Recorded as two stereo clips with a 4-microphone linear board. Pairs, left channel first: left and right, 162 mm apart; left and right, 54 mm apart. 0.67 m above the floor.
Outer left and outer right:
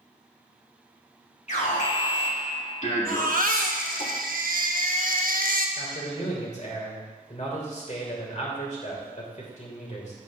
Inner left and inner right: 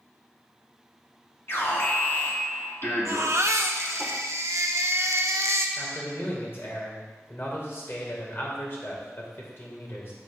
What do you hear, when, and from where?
1.5 s an alarm: 45° left (ahead or behind), 1.8 m
3.0 s a baby crying: 60° right (ahead or behind), 0.9 m
5.8 s a man speaking: 50° left (ahead or behind), 3 m